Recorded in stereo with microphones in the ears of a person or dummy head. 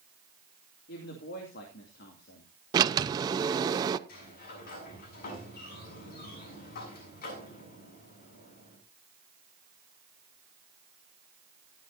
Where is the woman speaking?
65° left (ahead or behind), 2.5 m.